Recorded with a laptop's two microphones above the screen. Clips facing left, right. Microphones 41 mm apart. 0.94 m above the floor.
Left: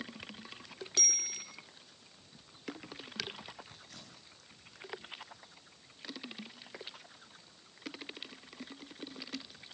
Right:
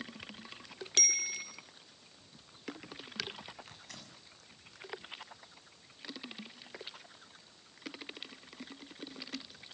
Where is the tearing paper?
85° right, 7 m.